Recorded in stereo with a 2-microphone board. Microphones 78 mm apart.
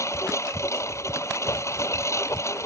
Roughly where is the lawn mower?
Left.